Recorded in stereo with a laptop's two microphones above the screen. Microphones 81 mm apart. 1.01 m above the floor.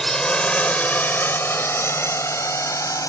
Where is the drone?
5° left (ahead or behind); by 3.1 s 45° left (ahead or behind).